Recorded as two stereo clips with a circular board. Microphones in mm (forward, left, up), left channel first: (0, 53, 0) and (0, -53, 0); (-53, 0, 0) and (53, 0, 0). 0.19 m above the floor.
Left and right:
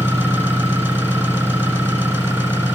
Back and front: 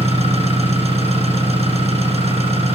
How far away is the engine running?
About 8 m.